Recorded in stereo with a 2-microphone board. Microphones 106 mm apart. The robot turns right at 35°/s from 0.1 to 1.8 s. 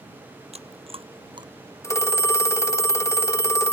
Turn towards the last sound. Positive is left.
turn(degrees=25)  # may be behind; listen again after turning